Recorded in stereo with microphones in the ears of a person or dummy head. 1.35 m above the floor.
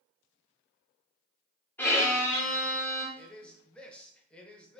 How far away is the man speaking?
About 0.7 m.